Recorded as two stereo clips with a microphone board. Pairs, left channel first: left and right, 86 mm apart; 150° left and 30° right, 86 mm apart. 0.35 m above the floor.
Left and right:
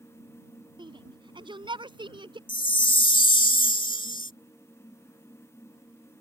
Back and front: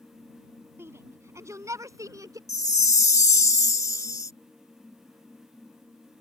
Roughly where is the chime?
Left.